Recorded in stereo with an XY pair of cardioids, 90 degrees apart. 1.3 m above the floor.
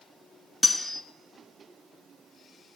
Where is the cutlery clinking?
25° left, 1.2 m.